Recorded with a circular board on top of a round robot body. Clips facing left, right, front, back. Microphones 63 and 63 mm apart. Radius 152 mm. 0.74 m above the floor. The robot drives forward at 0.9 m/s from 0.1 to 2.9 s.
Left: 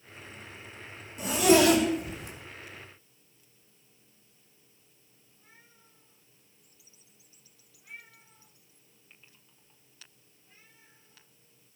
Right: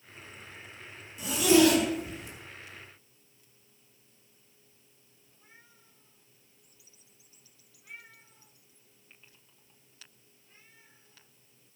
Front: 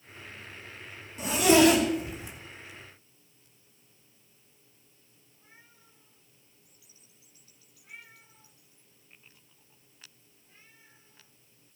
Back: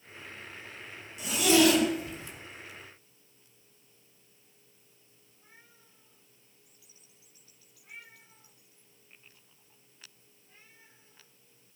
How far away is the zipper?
About 3 m.